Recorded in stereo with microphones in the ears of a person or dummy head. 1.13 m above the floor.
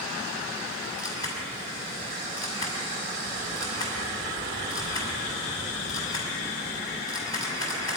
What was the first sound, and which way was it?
A camera shutter, 30° left (ahead or behind).